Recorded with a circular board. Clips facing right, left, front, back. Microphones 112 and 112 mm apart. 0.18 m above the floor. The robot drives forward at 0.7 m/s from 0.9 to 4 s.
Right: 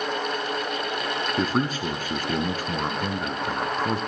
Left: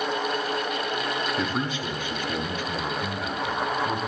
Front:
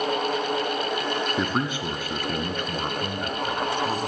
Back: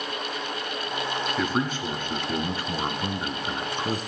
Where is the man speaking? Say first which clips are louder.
Right 3 dB, even; 60° right, 1.9 m; by 4.0 s 135° right, 2 m.